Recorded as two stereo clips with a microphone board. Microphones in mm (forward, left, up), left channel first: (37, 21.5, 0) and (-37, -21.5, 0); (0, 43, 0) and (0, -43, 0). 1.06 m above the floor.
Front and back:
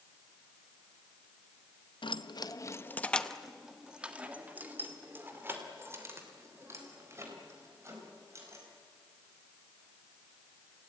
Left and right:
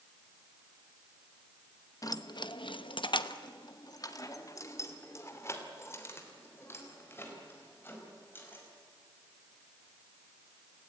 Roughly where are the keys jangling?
Ahead left.